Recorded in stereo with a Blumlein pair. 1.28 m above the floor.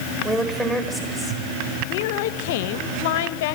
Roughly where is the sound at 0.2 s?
Ahead.